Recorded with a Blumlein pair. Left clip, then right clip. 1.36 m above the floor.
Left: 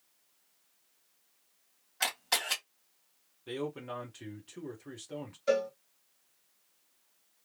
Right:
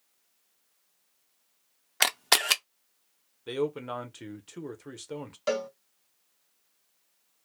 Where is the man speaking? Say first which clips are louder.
Right 7 dB; 70° right, 1.0 m.